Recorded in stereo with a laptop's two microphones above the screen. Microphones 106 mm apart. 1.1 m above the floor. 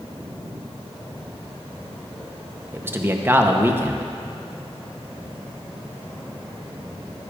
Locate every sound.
2.7 s a man speaking: 20° right (ahead or behind), 0.8 m